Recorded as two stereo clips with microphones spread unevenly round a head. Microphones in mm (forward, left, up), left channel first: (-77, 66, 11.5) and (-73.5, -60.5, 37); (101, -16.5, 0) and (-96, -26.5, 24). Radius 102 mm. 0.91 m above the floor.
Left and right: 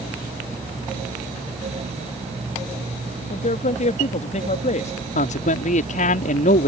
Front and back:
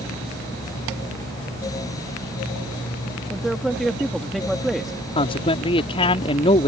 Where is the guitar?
No guitar in this recording.